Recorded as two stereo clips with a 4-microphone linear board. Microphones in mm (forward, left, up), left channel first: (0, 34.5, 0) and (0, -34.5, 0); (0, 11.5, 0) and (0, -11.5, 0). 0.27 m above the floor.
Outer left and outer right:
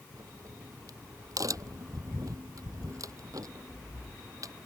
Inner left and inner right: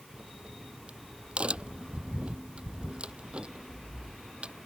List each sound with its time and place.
0.1 s a crack: 55° right (ahead or behind)